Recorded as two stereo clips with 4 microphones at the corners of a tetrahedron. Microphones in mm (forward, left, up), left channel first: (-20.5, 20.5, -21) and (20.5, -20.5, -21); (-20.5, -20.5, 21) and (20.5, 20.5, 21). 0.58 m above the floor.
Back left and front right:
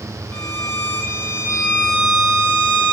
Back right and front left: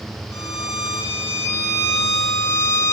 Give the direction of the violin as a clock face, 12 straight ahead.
6 o'clock.